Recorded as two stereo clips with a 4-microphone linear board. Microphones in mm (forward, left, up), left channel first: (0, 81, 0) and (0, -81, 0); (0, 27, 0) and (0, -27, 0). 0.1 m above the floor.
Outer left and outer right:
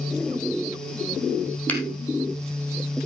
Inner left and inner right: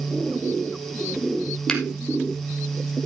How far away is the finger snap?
About 3 m.